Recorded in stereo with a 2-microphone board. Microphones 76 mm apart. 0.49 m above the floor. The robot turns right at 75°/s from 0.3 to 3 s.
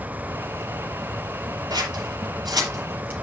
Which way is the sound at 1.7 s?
60° right (ahead or behind).